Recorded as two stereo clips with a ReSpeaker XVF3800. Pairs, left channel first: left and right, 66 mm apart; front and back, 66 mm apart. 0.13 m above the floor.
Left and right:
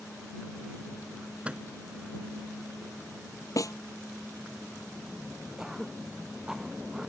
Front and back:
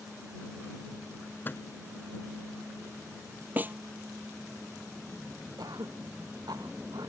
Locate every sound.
1.4 s a microwave: 30° right
3.6 s a snare drum: 120° left
5.6 s throat clearing: 170° right